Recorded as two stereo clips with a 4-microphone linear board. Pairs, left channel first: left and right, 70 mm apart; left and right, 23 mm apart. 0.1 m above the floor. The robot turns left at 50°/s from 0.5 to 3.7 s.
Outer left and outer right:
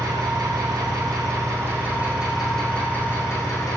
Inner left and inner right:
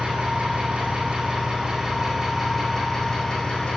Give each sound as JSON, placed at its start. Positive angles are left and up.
{"t": 0.0, "sound": "an engine running", "azimuth_deg": -85, "distance_m": 3.0}